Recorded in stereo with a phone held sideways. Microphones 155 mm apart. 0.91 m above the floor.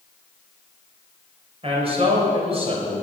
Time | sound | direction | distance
1.6 | a man speaking | 40° right (ahead or behind) | 3.5 m